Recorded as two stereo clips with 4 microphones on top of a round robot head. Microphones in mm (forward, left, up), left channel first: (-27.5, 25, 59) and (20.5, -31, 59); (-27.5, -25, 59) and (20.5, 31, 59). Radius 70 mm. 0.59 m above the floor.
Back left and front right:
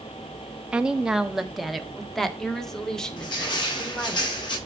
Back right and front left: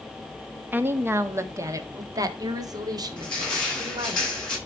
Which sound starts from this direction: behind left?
Crushing, at 3.2 s.